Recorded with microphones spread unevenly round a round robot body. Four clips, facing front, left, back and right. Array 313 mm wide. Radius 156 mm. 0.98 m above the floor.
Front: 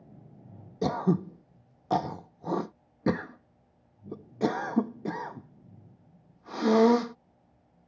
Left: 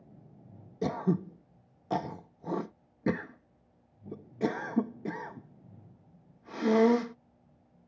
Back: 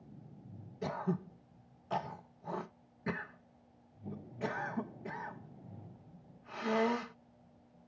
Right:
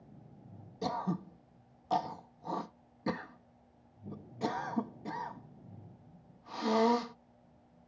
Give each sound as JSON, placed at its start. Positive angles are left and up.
{"t": 0.8, "sound": "throat clearing", "azimuth_deg": 25}